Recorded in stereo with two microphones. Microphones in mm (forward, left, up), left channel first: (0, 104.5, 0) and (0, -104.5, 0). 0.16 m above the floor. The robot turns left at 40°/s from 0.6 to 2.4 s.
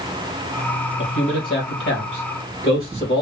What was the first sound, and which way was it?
A man speaking, 65° left (ahead or behind).